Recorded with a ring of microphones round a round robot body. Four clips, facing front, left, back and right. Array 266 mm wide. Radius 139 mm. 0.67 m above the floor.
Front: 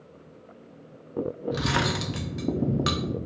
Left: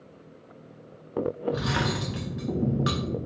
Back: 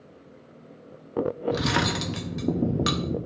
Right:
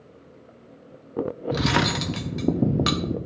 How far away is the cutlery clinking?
About 0.8 m.